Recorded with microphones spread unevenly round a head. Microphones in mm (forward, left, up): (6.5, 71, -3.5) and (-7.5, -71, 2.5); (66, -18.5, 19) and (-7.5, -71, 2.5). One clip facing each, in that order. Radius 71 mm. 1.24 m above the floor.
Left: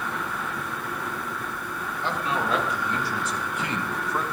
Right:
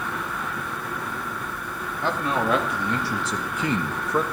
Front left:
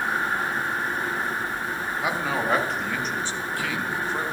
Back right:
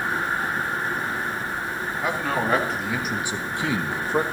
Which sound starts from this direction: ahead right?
A man speaking, at 2.0 s.